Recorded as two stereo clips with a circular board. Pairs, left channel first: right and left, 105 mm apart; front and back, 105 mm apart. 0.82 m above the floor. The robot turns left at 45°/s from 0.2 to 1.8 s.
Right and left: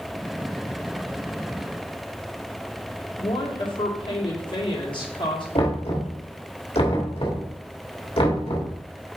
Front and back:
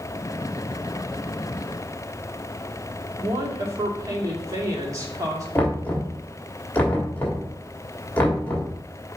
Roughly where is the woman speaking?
Behind right.